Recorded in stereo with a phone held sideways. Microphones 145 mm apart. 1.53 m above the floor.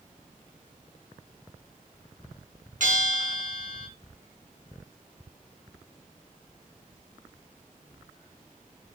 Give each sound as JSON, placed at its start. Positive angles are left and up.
{"t": 2.8, "sound": "a bell", "side_deg": -65, "distance_m": 5.5}